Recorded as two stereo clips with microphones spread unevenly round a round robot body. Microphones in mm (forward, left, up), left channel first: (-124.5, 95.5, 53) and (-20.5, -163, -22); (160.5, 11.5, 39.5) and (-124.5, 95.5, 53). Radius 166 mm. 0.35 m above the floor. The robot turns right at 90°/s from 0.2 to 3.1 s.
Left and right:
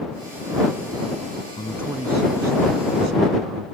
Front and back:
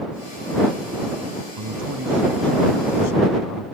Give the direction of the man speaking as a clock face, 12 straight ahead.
6 o'clock.